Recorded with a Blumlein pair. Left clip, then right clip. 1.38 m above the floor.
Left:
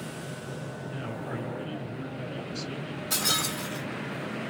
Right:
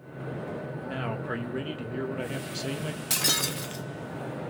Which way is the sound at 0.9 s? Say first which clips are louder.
Right 5 dB; 60° right.